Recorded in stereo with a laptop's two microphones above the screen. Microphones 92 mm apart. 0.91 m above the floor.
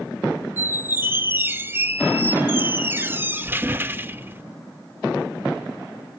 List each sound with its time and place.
0.6 s a squeak: 25° right (ahead or behind), 0.5 m